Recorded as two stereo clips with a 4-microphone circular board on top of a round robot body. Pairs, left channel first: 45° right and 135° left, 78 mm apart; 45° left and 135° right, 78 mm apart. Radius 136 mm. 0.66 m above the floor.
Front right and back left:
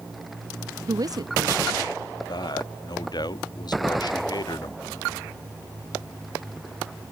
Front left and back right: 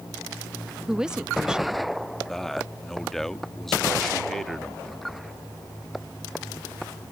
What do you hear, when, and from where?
0.9 s a woman speaking: 145° left
2.3 s a man speaking: 40° right